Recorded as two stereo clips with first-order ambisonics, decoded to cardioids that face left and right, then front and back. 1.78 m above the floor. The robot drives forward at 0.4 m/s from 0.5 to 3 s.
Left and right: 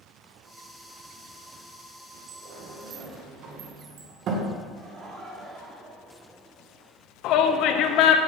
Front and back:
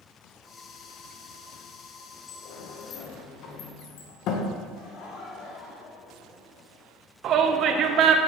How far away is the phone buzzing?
No phone buzzing in this recording.